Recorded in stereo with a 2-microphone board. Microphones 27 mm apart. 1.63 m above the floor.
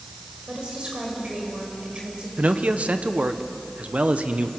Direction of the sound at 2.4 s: 60° right (ahead or behind).